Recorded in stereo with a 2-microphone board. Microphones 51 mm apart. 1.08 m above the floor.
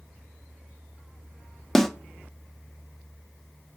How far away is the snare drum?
About 1.0 m.